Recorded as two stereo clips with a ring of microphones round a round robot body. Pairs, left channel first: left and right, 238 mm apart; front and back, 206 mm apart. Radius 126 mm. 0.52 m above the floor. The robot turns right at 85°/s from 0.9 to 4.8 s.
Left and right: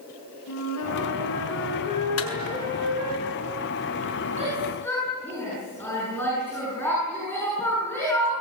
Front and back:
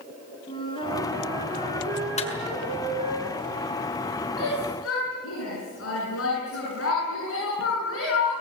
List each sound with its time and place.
0.5 s a flute: 65° left, 5 m; by 3.2 s 100° right, 5 m
2.2 s a clap: 55° left, 6.5 m; by 2.3 s 70° left, 6.5 m
4.4 s a shout: 30° right, 9 m; by 8.3 s 10° left, 9 m